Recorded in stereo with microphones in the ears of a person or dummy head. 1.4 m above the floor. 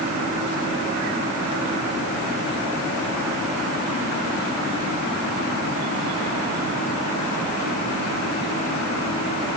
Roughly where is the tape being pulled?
I don't hear tape being pulled.